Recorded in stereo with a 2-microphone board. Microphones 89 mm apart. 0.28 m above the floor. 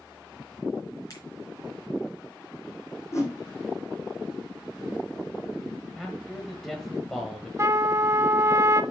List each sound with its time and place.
1.1 s a finger snap: 40° left (ahead or behind), 3.5 m
3.1 s a whoosh: 30° left (ahead or behind), 4 m
6.0 s a man speaking: 5° left (ahead or behind), 1.2 m
7.6 s a trumpet: 35° right (ahead or behind), 0.5 m